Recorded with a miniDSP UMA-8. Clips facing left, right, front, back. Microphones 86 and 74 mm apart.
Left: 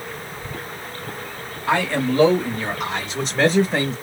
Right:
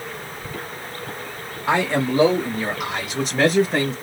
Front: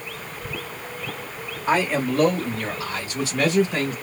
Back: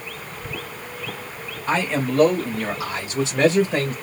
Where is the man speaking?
60° right, 1.4 m; by 3.9 s 175° left, 1.6 m.